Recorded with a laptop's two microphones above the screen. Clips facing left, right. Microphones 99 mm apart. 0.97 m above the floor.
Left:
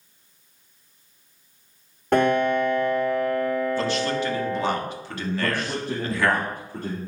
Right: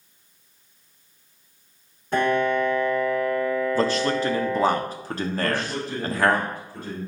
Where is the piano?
80° left, 3.5 m.